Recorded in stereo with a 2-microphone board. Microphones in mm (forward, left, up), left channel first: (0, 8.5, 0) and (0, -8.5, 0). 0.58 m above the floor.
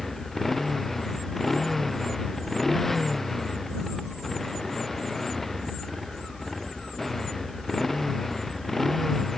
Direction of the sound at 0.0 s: 15° left (ahead or behind).